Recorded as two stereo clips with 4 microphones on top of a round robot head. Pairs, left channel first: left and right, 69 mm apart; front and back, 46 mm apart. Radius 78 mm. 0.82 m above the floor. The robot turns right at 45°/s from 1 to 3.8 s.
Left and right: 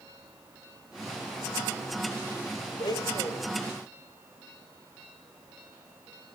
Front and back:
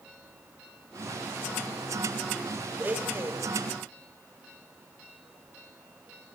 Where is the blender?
120° left, 2.5 m; by 3.5 s 155° left, 2.5 m.